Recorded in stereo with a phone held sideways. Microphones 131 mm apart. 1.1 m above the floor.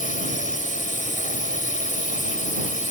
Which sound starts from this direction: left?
A drone, at 0.0 s.